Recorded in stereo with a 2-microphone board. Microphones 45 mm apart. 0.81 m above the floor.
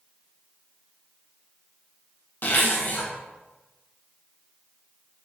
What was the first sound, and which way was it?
A zipper, 50° left (ahead or behind).